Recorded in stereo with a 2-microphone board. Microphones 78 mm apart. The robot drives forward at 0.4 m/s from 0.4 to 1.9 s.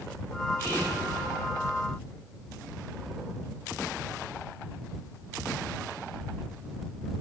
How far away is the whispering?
About 0.9 m.